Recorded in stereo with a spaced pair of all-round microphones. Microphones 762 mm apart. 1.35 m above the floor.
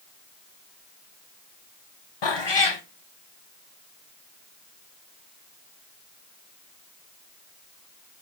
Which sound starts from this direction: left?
A cat meowing, at 2.2 s.